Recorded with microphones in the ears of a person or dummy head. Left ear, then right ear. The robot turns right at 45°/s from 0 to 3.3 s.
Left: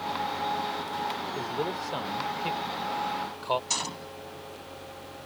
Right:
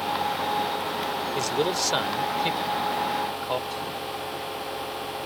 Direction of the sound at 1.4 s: 75° right (ahead or behind).